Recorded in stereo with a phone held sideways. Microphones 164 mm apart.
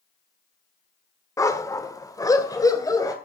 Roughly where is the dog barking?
Centre.